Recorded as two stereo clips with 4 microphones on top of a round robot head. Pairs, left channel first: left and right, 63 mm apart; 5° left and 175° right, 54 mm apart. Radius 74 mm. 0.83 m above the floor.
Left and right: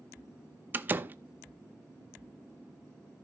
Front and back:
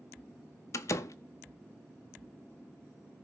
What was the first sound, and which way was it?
A door slam, 30° right.